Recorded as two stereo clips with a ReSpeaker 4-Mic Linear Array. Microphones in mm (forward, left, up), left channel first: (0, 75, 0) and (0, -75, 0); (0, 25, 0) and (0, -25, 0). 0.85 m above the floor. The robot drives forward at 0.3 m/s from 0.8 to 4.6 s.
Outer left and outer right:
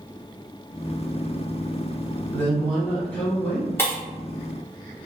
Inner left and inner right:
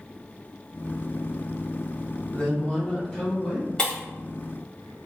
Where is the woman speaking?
15° left (ahead or behind), 1.1 m; by 3.7 s 10° left (ahead or behind), 1.5 m.